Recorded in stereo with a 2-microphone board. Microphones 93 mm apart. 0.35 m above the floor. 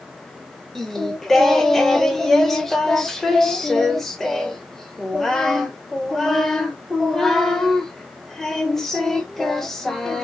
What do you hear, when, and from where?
0.8 s singing: 5° left (ahead or behind), 0.6 m